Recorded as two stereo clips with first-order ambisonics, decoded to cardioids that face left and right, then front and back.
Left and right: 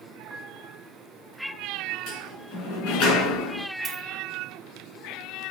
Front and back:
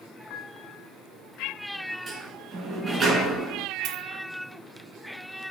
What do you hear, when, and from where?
0.3 s a piano: 5° right, 1.9 m
2.1 s a sliding door: 115° left, 3.5 m
3.9 s a dropped coin: 170° right, 2 m